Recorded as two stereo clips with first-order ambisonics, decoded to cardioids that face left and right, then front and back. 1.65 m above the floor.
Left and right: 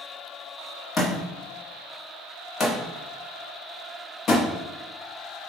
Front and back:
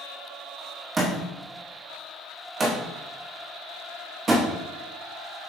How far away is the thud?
About 1.3 m.